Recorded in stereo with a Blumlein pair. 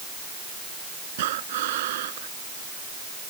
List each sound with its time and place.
1.2 s breathing: 55° right